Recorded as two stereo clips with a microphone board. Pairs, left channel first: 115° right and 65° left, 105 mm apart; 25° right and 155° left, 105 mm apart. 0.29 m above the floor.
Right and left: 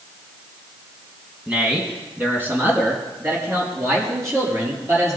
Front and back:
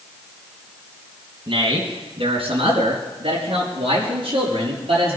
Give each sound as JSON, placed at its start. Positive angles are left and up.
{"t": 1.5, "sound": "a man speaking", "azimuth_deg": 145, "distance_m": 3.0}